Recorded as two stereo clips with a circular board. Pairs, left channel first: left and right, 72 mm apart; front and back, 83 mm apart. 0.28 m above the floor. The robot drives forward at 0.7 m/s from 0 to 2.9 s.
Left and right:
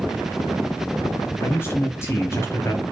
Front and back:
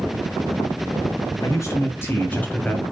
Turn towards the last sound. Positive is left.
turn(degrees=75)